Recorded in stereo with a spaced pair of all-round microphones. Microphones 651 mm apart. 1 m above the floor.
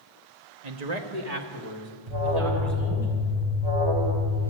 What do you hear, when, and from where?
0.6 s a man speaking: 75° right (ahead or behind), 1.3 m; by 3.1 s 40° right (ahead or behind), 4.5 m
2.1 s an alarm: 40° right (ahead or behind), 3.5 m